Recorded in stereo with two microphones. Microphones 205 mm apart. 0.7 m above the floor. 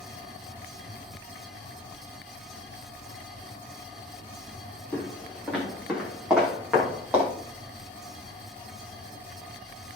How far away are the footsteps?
About 7 m.